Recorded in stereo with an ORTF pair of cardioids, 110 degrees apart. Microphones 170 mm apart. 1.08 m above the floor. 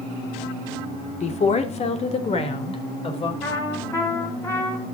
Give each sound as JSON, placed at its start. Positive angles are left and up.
{"t": 1.2, "sound": "a woman speaking", "azimuth_deg": 45, "distance_m": 2.5}
{"t": 3.4, "sound": "a trumpet", "azimuth_deg": 15, "distance_m": 5.5}